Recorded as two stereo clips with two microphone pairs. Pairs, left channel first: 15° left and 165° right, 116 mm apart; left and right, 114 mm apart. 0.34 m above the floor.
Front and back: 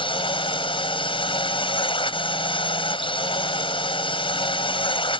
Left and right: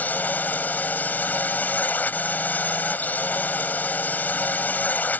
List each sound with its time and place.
0.0 s a drone: 20° left